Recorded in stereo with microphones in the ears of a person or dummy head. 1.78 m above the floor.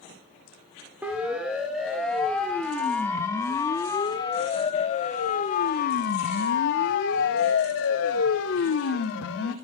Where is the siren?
5° right (ahead or behind), 3.5 m; by 9.6 s 80° left, 3.5 m.